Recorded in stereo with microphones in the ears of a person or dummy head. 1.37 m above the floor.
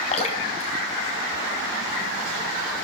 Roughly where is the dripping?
Left.